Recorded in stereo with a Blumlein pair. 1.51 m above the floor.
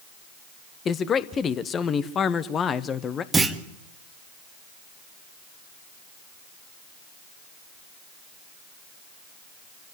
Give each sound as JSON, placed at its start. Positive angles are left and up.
{"t": 0.8, "sound": "a man speaking", "azimuth_deg": 25, "distance_m": 1.2}
{"t": 3.3, "sound": "a clunk", "azimuth_deg": -10, "distance_m": 1.6}